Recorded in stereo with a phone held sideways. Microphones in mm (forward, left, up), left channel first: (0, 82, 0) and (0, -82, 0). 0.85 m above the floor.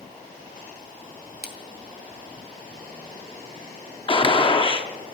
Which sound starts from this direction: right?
A splash, at 1.4 s.